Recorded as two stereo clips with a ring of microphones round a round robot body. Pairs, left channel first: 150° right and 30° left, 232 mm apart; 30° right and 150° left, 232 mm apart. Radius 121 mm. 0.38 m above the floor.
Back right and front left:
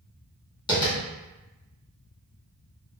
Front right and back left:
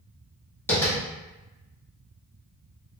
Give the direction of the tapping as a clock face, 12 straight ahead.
3 o'clock.